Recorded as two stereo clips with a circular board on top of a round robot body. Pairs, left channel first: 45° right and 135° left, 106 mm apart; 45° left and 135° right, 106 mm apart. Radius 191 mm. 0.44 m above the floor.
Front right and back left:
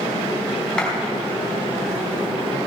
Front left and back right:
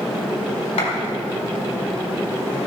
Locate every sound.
0.8 s a clap: 35° left, 4.5 m